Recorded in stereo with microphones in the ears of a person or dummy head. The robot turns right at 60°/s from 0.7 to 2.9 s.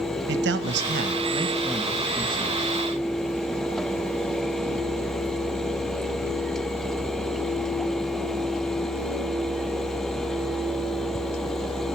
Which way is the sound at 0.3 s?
70° right.